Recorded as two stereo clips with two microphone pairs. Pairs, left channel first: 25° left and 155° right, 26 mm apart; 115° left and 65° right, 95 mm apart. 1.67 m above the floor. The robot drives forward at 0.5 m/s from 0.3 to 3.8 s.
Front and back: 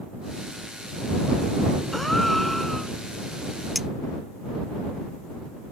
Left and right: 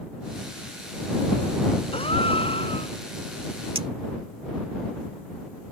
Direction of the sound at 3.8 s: 70° right.